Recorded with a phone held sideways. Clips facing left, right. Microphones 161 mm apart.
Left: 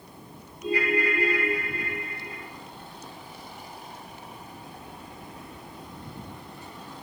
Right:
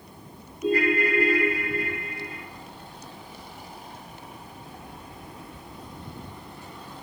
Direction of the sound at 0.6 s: 45° right (ahead or behind).